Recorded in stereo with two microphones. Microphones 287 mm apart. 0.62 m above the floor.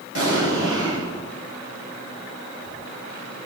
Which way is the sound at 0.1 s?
55° right (ahead or behind).